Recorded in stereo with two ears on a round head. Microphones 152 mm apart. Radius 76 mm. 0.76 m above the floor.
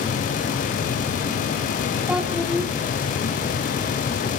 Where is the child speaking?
5° right (ahead or behind), 1.3 m.